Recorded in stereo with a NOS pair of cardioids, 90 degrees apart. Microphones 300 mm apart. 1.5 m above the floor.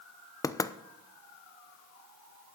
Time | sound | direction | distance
0.4 | knocking | 10° left | 0.6 m